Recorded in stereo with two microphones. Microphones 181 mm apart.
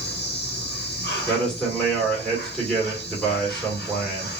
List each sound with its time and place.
0.0 s an insect: 70° left (ahead or behind), 1.2 m
1.3 s a man speaking: 5° left (ahead or behind), 2 m